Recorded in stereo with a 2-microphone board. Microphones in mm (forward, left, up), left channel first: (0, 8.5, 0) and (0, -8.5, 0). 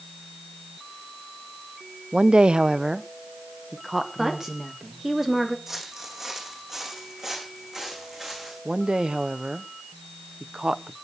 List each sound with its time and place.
2.1 s a woman speaking: 70° right (ahead or behind), 0.6 m; by 5.0 s 5° right (ahead or behind), 2.5 m
4.2 s a woman speaking: 25° right (ahead or behind), 3 m
5.7 s footsteps: 20° right (ahead or behind), 3.5 m; by 8.6 s 25° right (ahead or behind), 6 m
8.7 s a woman speaking: 70° right (ahead or behind), 1.0 m